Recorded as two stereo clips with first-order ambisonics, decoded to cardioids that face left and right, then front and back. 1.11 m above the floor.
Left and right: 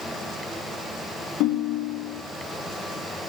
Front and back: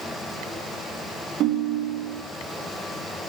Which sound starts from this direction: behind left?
A ringtone, at 1.4 s.